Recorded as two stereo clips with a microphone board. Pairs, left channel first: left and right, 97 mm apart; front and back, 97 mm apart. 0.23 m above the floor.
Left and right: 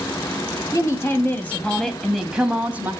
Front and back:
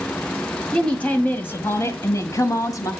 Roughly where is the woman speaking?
Left.